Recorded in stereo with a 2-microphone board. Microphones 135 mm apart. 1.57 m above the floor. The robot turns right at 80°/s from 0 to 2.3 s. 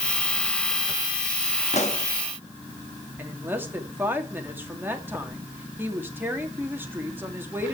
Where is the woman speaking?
15° right (ahead or behind), 2.5 m.